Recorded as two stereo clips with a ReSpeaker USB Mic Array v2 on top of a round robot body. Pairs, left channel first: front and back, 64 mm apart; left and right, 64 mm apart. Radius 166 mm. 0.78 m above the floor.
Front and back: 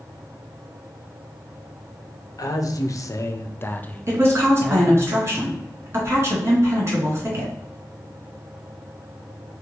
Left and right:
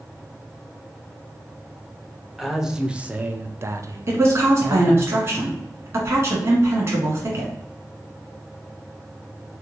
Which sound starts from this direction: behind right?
A woman speaking, at 4.1 s.